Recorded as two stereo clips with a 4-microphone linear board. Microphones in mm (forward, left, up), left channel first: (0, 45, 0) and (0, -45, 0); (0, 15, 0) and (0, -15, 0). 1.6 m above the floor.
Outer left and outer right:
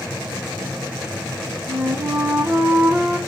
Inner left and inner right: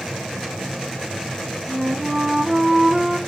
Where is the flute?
25° right (ahead or behind), 0.8 m.